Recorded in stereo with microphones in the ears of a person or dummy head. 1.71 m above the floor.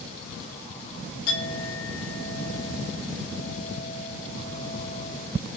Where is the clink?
80° left, 4 m.